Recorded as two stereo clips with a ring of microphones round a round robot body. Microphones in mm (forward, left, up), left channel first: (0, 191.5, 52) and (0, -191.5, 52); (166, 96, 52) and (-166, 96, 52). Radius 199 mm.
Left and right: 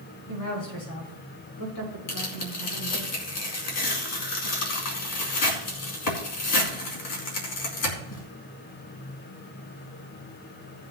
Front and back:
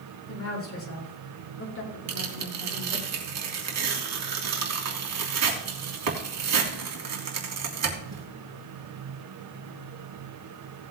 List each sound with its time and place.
0.3 s a woman speaking: 45° left, 6.5 m; by 3.1 s 55° left, 5 m
2.1 s tearing paper: 140° left, 3 m